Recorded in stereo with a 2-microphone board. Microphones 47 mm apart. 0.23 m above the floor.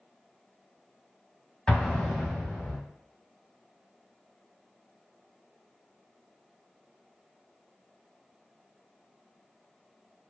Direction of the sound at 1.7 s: 15° left (ahead or behind).